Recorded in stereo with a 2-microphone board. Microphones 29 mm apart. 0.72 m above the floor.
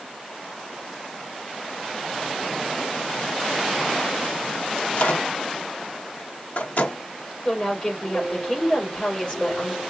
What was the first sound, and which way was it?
A microwave, 60° left (ahead or behind).